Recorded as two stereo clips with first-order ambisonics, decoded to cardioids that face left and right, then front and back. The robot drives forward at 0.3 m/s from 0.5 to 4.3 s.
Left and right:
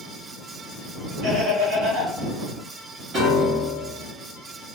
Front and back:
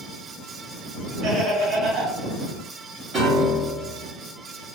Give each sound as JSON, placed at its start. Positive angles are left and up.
{"t": 1.2, "sound": "laughter", "azimuth_deg": -130, "distance_m": 1.3}
{"t": 3.1, "sound": "a piano", "azimuth_deg": -130, "distance_m": 1.4}